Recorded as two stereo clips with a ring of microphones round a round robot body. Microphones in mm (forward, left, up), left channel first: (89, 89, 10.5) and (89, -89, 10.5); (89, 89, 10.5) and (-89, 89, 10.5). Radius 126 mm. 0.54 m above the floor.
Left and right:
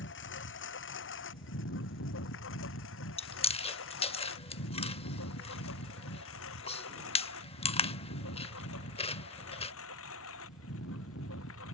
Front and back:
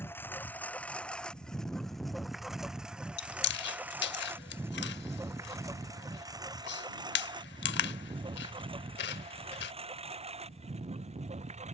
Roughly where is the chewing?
Ahead left.